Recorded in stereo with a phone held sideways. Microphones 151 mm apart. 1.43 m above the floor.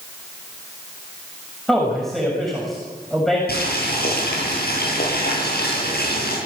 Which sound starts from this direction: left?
Boiling, at 3.5 s.